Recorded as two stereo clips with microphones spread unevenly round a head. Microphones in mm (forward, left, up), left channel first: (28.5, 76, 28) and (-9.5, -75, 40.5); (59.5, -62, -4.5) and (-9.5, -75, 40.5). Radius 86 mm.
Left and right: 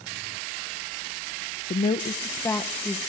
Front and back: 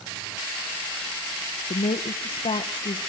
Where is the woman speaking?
30° left, 0.9 m; by 3.0 s 15° right, 1.2 m.